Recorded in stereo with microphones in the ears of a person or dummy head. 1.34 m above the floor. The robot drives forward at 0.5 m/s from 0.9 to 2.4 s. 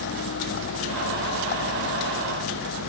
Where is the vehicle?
65° left (ahead or behind).